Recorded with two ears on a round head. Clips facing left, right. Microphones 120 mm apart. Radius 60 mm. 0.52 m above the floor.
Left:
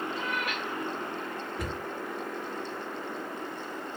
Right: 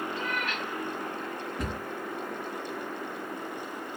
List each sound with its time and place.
0.1 s a cat meowing: 10° left (ahead or behind), 3.5 m
1.6 s a cupboard door: 5° left (ahead or behind), 4.5 m